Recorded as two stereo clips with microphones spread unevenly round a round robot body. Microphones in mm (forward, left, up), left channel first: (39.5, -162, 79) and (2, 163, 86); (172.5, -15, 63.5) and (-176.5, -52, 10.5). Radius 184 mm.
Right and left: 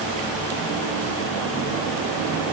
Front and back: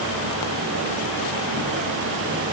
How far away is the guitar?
I don't hear a guitar.